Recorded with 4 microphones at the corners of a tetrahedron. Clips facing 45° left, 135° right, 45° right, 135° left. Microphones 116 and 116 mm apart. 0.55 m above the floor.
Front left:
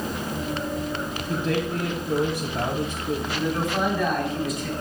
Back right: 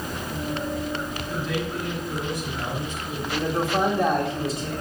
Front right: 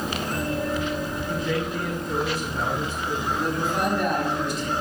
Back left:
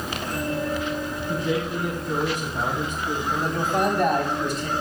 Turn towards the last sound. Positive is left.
turn(degrees=170)